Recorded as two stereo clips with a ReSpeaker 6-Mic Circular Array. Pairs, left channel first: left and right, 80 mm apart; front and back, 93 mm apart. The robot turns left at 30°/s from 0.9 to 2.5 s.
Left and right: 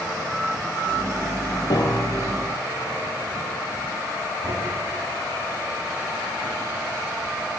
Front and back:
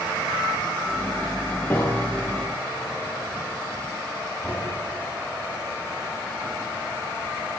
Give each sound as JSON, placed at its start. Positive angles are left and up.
{"t": 1.7, "sound": "a piano", "azimuth_deg": 65, "distance_m": 3.5}
{"t": 4.4, "sound": "knocking", "azimuth_deg": -85, "distance_m": 8.5}